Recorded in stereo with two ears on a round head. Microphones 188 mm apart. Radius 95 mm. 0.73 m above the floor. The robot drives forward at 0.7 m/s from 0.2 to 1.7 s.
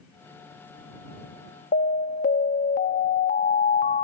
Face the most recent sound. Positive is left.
turn(degrees=40)  # may be behind; listen again after turning